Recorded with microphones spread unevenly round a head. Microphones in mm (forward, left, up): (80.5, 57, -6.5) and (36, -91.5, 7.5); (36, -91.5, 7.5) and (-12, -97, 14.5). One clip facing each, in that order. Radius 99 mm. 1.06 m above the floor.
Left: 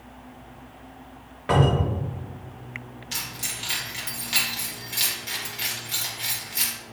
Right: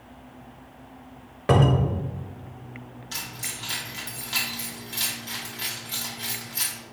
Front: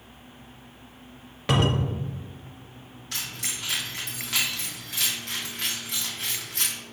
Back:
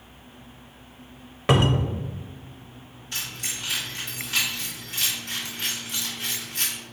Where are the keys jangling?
Straight ahead, 1.5 m.